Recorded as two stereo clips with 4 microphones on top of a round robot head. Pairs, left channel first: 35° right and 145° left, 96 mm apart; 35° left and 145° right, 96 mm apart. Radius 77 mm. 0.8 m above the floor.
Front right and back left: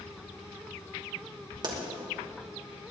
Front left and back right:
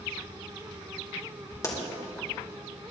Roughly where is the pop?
Left.